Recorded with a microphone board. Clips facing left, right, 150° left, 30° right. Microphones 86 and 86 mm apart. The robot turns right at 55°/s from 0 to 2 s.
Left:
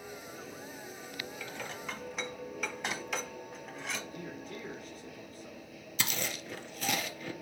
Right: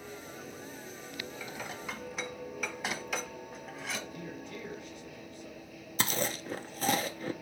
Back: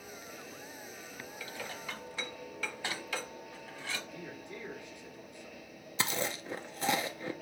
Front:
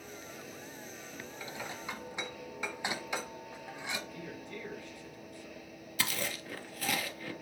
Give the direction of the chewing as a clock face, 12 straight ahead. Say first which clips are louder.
Right 4 dB, back 2 dB; 5 o'clock.